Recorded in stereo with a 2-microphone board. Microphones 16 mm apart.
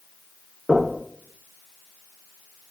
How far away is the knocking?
About 3 m.